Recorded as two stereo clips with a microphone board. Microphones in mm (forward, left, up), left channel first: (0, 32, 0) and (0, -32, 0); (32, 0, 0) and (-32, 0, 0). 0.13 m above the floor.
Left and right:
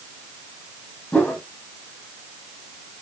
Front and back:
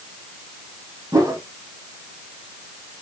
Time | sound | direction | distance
1.1 | a whoosh | 155° left | 2.5 m